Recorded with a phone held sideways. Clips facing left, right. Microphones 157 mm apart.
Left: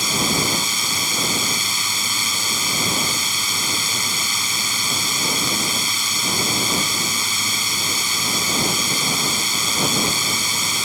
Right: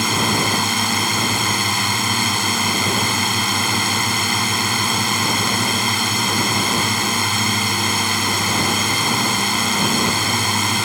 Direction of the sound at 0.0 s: 65° right (ahead or behind).